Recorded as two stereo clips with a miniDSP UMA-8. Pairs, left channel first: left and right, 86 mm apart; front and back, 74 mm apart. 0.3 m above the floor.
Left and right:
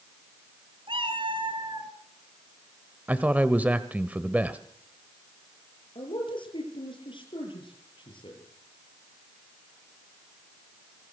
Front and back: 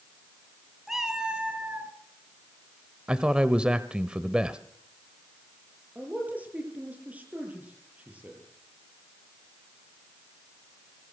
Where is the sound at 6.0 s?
110° left, 8.5 m.